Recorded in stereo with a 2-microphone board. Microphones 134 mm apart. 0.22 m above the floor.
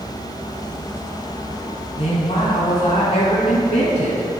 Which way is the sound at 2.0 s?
50° left (ahead or behind).